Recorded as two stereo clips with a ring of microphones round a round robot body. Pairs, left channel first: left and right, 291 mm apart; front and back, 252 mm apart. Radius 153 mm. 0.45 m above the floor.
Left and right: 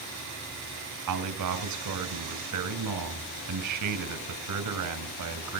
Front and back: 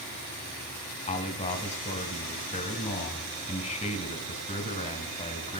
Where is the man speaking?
65° right, 2.5 m.